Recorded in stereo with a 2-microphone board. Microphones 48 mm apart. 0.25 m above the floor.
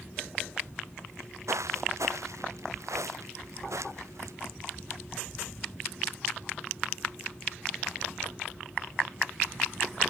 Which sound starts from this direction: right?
Footsteps, at 1.1 s.